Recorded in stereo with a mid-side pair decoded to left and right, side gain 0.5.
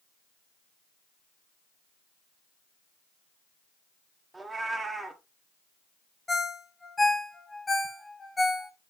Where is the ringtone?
20° left, 1.1 m.